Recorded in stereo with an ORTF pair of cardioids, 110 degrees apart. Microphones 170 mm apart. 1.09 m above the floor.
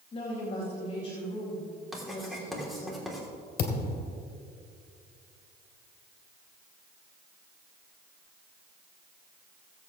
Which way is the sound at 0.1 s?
35° left.